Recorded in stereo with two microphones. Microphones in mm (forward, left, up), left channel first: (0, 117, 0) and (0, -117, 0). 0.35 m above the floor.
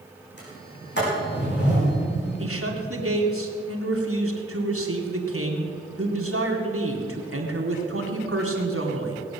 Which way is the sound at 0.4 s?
50° left (ahead or behind).